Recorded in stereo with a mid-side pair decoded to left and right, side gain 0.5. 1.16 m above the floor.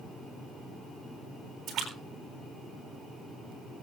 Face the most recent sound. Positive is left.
turn(degrees=-60)